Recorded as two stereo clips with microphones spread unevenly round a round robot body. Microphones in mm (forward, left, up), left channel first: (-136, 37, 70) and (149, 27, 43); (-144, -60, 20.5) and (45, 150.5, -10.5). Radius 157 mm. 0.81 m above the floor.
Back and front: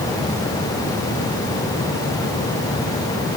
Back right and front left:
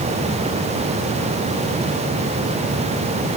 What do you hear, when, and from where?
Only background noise.